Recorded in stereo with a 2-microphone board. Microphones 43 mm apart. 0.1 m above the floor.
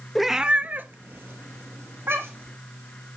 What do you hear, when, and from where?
0.1 s a cat meowing: centre (ahead or behind), 0.5 m; by 2.6 s 65° right (ahead or behind), 1.9 m